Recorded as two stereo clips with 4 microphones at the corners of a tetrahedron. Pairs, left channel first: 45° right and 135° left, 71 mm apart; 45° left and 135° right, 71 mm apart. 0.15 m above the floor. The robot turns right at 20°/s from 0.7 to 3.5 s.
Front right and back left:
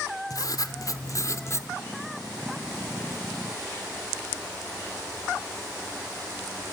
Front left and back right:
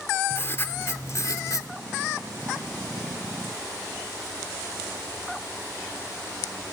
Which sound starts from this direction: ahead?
Writing, at 0.3 s.